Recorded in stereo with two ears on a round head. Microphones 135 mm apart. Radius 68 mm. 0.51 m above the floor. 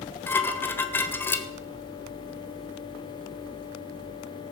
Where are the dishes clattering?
15° left (ahead or behind), 1.3 m.